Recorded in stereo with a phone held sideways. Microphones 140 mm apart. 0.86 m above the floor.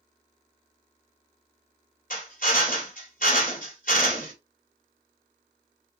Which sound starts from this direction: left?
A drill, at 2.1 s.